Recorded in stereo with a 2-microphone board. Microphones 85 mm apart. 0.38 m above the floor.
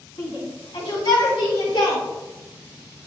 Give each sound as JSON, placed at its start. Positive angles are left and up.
{"t": 0.2, "sound": "a shout", "side_deg": 70, "distance_m": 3.0}